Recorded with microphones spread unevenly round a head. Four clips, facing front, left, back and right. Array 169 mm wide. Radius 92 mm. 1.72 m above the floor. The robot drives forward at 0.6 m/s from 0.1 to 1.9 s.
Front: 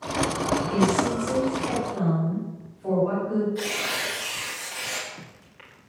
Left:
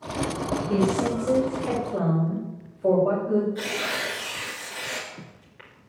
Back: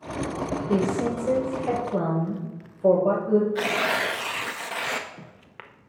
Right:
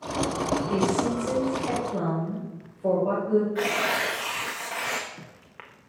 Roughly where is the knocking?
I don't hear knocking.